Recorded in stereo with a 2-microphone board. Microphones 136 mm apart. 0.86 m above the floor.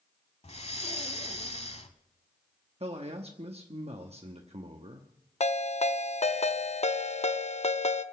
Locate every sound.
0.4 s breathing: 55° left (ahead or behind), 1.0 m
2.8 s a man speaking: 50° right (ahead or behind), 1.0 m
5.4 s a ringtone: 55° left (ahead or behind), 0.7 m